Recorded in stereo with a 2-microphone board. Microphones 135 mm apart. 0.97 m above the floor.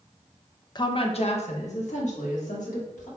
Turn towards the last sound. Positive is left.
turn(degrees=75)  # may be behind; listen again after turning